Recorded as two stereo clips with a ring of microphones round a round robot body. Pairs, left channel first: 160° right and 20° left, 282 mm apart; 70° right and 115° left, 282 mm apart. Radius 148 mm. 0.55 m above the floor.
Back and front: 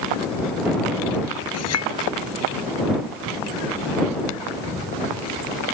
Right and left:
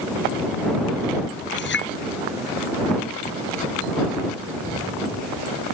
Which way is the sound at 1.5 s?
120° right.